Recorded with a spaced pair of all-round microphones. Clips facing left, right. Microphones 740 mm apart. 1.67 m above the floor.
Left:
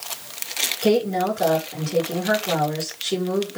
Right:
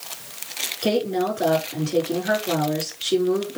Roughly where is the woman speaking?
Left.